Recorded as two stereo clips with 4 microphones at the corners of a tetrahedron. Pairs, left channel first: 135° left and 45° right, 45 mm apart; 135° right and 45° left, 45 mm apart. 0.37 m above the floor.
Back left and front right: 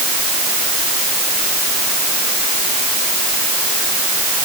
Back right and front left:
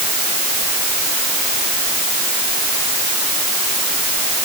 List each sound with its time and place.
Only background noise.